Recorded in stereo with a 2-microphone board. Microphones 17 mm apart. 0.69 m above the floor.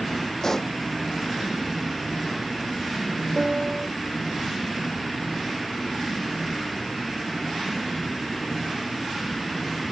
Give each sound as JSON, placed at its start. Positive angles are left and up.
{"t": 0.4, "sound": "a pop", "side_deg": 30}
{"t": 3.4, "sound": "a piano", "side_deg": -80}